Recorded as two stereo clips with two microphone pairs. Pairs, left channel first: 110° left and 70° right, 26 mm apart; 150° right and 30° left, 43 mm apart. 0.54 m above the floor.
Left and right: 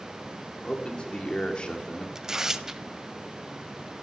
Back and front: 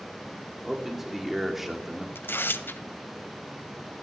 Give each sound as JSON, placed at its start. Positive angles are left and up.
{"t": 0.6, "sound": "a man speaking", "azimuth_deg": 110, "distance_m": 1.6}
{"t": 2.1, "sound": "tearing paper", "azimuth_deg": -135, "distance_m": 0.6}